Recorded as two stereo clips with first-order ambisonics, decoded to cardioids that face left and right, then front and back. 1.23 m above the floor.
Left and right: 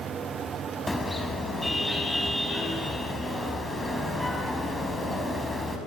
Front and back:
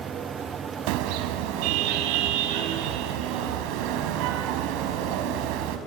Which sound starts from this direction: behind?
A car horn, at 0.9 s.